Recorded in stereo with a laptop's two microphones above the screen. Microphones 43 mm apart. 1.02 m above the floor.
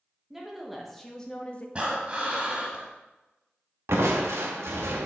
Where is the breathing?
30° right (ahead or behind), 1.2 m.